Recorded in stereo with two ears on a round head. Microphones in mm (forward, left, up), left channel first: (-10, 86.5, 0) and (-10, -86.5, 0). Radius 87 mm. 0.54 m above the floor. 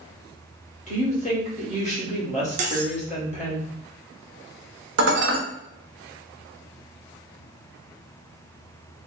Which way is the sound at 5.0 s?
65° right (ahead or behind).